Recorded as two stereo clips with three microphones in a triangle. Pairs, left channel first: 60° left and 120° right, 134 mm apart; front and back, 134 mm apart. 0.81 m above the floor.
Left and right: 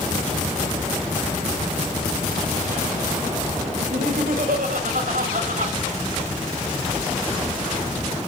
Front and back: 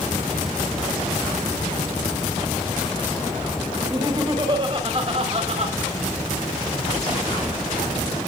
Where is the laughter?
115° right, 5 m; by 5.8 s 140° right, 5 m.